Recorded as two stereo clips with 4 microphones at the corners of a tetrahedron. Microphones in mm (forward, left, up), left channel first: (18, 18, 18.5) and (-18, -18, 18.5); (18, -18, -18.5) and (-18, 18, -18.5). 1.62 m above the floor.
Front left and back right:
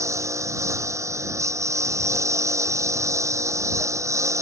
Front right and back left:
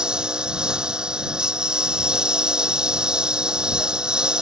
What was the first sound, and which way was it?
A lawn mower, 150° right.